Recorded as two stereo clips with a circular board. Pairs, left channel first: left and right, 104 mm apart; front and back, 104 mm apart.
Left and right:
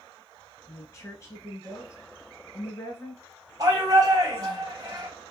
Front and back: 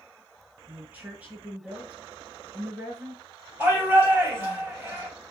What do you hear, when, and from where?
0.7 s a woman speaking: 120° left, 1.7 m
3.6 s a shout: 120° right, 2 m